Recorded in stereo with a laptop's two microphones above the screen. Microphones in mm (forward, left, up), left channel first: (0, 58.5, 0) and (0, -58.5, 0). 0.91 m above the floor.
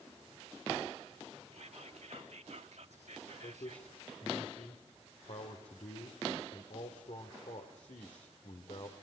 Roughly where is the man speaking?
Left.